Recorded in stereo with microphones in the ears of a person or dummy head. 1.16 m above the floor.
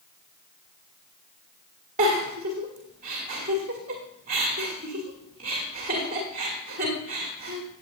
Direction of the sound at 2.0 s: 45° right (ahead or behind).